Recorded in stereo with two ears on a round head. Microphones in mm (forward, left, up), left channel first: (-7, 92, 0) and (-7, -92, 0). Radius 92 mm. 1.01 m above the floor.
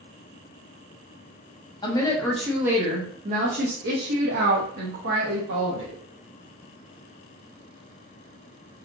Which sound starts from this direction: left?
A woman speaking, at 1.8 s.